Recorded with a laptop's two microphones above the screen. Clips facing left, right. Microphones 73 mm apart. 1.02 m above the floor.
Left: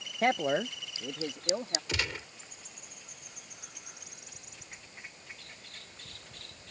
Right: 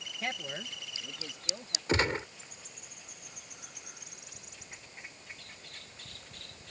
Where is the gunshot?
40° right (ahead or behind).